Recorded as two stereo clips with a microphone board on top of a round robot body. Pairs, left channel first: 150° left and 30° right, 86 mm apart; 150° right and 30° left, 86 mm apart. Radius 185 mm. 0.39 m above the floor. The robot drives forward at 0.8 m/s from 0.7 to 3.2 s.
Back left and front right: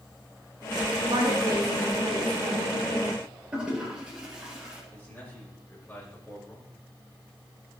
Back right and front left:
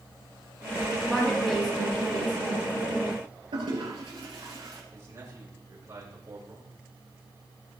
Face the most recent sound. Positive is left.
turn(degrees=80)